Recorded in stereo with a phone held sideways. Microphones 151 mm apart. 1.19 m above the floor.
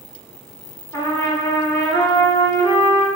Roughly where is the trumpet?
Left.